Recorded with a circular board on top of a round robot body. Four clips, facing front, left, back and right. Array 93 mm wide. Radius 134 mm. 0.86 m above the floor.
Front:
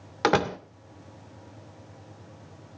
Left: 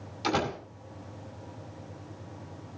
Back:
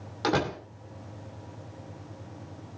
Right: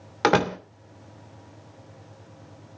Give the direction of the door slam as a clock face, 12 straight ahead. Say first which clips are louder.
Right 8 dB, front 4 dB; 2 o'clock.